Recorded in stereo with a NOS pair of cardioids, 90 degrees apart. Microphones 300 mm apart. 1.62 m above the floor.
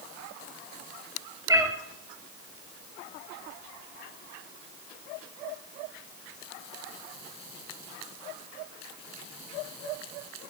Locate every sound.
1.5 s a cat meowing: 15° right, 3.5 m